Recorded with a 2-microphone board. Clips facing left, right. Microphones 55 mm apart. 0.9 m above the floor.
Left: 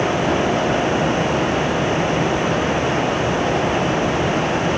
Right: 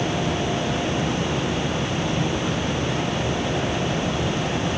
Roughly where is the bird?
No bird in this recording.